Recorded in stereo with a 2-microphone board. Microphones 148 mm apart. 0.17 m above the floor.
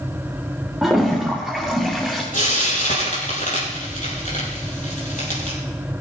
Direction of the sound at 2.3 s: 70° left (ahead or behind).